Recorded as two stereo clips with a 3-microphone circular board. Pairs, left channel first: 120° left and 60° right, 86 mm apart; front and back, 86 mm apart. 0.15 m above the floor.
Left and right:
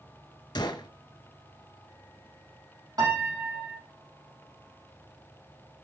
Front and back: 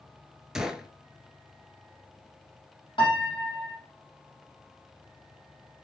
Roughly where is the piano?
Ahead.